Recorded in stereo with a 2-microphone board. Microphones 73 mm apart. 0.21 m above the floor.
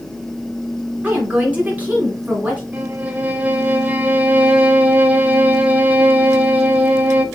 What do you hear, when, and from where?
1.0 s a woman speaking: 20° right (ahead or behind), 2 m
2.7 s a violin: 25° right (ahead or behind), 0.6 m